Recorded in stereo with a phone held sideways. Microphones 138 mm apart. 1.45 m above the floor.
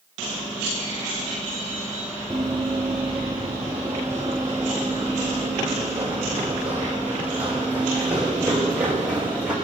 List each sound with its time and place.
2.3 s running footsteps: 20° right (ahead or behind), 1.8 m; by 9.6 s 10° right (ahead or behind), 5 m